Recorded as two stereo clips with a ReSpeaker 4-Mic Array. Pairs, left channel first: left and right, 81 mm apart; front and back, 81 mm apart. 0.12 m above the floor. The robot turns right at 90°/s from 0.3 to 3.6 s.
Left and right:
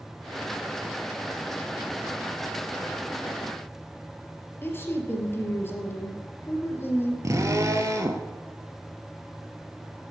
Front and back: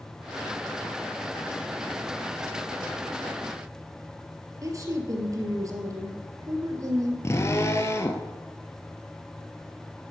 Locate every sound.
4.6 s a woman speaking: 145° left, 3 m
7.2 s a drill: 45° right, 1.4 m